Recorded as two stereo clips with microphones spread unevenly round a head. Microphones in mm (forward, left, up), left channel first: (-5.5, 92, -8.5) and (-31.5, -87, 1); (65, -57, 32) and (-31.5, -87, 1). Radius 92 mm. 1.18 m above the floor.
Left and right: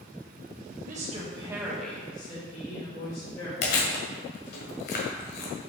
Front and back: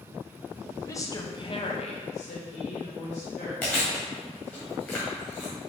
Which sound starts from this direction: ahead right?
A woman speaking, at 0.8 s.